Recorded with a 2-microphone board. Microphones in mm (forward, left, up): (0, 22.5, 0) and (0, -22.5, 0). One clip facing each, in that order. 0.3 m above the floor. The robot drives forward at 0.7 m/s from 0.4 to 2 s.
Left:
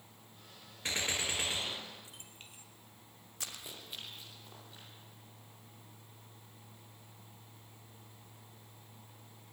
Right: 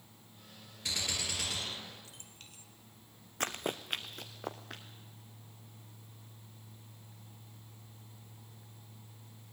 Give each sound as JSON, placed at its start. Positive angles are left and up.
{"t": 0.8, "sound": "a gunshot", "side_deg": 35, "distance_m": 1.2}
{"t": 3.4, "sound": "running footsteps", "side_deg": -45, "distance_m": 1.0}